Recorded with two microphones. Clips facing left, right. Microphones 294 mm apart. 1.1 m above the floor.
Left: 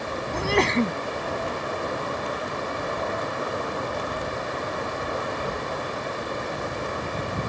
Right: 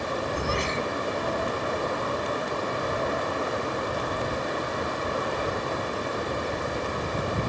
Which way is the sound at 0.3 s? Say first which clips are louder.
Left 6 dB; 70° left (ahead or behind).